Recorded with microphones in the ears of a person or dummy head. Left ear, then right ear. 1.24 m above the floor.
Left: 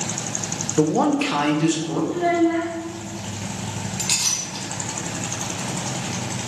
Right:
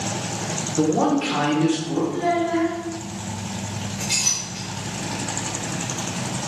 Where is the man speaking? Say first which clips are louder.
Left 1 dB; 60° left (ahead or behind), 0.5 m; by 2.0 s 75° left (ahead or behind), 1.3 m.